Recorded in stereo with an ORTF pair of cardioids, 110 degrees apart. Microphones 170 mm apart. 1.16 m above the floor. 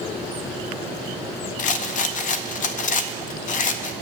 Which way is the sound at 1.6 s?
55° left.